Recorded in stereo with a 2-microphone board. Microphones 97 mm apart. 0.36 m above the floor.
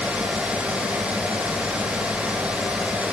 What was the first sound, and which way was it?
Only background noise.